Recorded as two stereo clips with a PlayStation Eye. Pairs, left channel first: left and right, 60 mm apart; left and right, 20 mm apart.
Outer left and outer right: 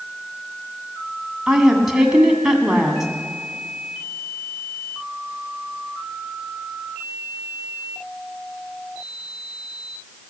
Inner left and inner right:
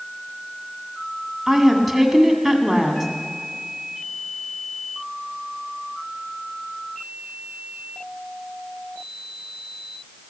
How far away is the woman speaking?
About 1.8 m.